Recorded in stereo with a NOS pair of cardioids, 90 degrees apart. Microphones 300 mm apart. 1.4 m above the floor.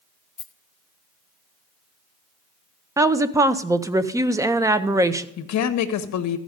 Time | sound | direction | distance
0.4 | a rattle | 50° left | 1.0 m
3.0 | a woman speaking | 10° right | 0.6 m
5.4 | a woman speaking | 65° left | 0.8 m